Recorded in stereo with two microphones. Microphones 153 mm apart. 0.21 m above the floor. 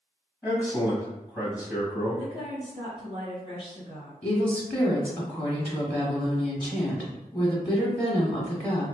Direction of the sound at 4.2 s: 10° left (ahead or behind).